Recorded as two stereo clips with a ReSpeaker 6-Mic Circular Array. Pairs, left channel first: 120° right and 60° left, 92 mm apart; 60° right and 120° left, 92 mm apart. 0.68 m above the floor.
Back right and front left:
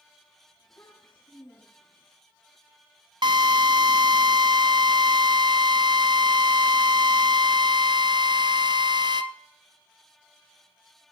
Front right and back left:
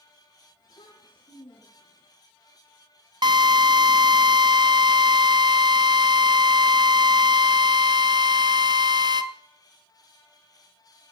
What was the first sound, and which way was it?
A child speaking, 70° right.